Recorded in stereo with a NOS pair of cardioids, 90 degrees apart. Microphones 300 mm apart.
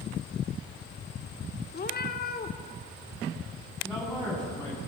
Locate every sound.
1.7 s a cat meowing: 35° left, 1.9 m
3.8 s a man speaking: 5° left, 9 m